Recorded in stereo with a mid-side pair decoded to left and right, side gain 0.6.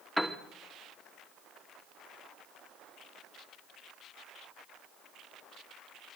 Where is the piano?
Straight ahead, 3 m.